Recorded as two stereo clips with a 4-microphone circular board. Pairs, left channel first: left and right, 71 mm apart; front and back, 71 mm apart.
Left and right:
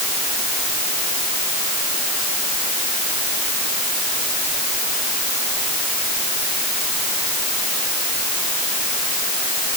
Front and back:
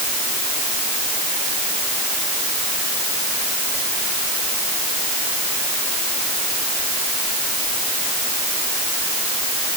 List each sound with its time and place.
Only background noise.